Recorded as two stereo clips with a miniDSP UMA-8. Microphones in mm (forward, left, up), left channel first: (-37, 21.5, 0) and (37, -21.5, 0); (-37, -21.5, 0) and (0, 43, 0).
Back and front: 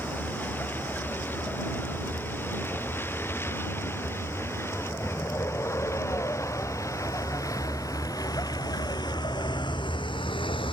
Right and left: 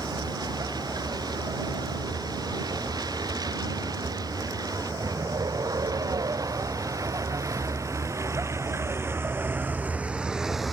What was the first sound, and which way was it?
A vehicle, 80° left.